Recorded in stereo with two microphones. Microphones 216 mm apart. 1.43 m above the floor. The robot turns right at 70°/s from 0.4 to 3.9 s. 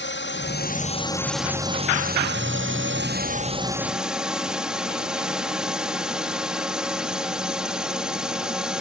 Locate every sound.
0.0 s a drone: 110° left; by 8.8 s 5° right